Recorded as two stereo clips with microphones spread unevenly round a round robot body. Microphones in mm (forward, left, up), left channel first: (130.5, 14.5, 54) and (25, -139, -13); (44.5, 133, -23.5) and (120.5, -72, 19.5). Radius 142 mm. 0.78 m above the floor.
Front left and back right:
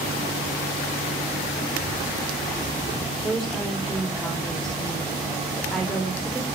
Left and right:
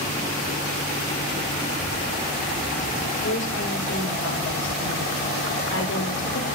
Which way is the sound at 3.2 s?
150° left.